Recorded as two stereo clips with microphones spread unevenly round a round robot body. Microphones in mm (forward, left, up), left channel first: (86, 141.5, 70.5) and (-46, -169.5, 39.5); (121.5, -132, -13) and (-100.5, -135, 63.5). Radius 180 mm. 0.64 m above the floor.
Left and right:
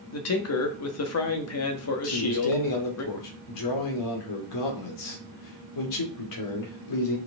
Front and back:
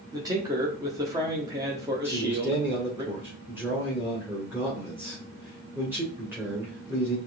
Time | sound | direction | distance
0.1 | a man speaking | 90° left | 1.5 m
2.0 | a man speaking | 90° left | 2.5 m